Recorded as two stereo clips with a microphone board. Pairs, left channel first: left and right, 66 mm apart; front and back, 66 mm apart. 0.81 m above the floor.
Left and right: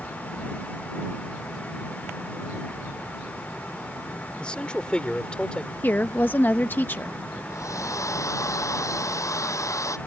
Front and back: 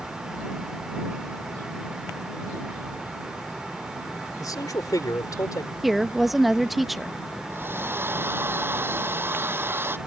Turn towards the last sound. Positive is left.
turn(degrees=125)